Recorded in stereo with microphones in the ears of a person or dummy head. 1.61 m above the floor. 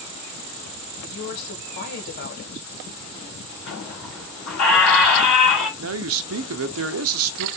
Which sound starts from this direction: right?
A man speaking, at 5.8 s.